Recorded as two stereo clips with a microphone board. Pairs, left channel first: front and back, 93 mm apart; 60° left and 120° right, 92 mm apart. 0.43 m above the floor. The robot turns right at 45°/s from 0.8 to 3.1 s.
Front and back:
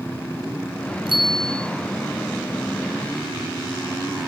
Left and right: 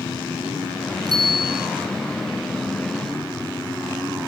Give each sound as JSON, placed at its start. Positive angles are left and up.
{"t": 1.1, "sound": "a bicycle bell", "azimuth_deg": -160, "distance_m": 4.0}